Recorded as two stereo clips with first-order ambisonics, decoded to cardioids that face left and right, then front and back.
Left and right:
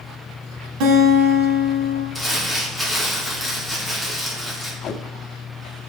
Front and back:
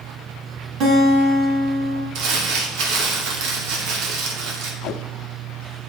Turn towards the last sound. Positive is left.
turn(degrees=35)